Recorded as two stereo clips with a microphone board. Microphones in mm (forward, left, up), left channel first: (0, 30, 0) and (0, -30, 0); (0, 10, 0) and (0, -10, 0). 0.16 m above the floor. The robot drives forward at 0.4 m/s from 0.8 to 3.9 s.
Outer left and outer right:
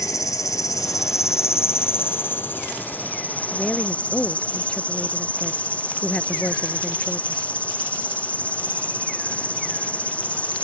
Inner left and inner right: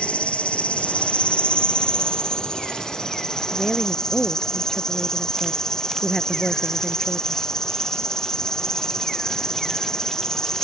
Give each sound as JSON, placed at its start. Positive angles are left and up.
{"t": 0.0, "sound": "an insect", "side_deg": 70}
{"t": 3.5, "sound": "a woman speaking", "side_deg": 15}